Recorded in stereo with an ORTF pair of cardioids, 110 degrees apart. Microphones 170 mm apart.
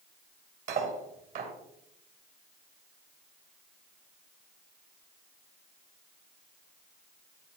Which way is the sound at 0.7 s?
55° right.